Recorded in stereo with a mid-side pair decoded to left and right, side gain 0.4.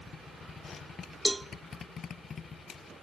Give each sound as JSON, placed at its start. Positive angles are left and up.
{"t": 1.2, "sound": "a cowbell", "azimuth_deg": -10, "distance_m": 1.0}